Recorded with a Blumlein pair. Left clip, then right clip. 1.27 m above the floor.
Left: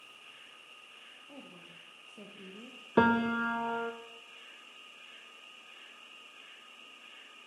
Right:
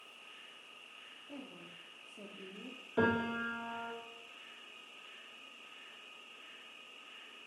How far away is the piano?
About 0.6 m.